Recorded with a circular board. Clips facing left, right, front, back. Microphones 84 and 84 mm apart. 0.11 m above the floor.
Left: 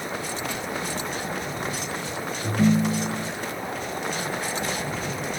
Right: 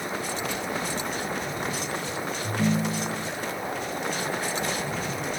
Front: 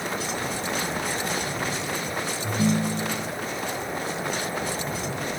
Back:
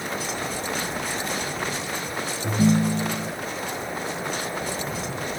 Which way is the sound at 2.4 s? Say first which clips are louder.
Left 5 dB, back 4 dB; 135° left.